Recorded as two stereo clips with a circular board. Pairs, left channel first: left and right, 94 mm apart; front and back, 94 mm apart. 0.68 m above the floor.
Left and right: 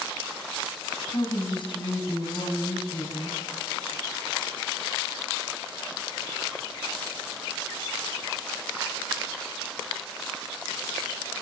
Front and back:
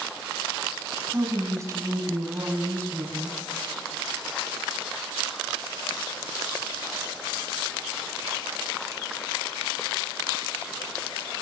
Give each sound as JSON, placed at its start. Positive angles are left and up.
{"t": 1.1, "sound": "a woman speaking", "azimuth_deg": 120, "distance_m": 5.5}